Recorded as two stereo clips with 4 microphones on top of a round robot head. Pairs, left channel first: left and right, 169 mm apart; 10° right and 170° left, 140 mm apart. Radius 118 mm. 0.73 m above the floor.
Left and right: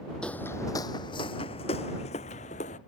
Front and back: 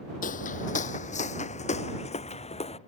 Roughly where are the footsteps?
Ahead.